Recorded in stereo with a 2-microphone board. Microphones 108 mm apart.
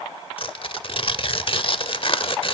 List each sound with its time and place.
0.4 s tearing paper: 50° left (ahead or behind), 0.9 m